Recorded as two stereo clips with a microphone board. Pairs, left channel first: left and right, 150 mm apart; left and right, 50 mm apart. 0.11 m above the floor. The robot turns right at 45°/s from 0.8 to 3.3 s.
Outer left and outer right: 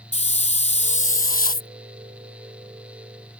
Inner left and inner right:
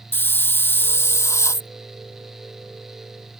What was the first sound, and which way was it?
A hiss, 50° left.